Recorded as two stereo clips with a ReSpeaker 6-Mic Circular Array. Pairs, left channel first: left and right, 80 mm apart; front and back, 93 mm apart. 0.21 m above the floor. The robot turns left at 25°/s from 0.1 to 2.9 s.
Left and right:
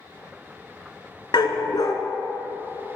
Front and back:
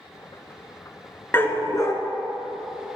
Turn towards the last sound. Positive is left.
turn(degrees=25)